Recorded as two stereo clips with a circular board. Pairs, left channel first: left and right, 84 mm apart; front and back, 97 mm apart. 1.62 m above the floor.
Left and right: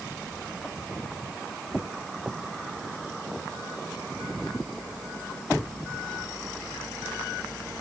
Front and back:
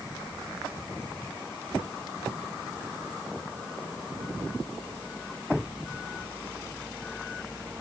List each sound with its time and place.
Only background noise.